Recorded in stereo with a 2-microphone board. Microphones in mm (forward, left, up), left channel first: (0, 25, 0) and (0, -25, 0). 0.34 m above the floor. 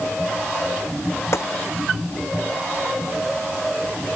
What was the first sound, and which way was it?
A gunshot, 65° left (ahead or behind).